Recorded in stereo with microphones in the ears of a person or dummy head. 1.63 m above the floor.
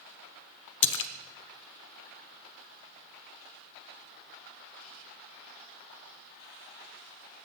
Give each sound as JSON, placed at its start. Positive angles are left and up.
{"t": 0.8, "sound": "a splash", "side_deg": 60, "distance_m": 0.6}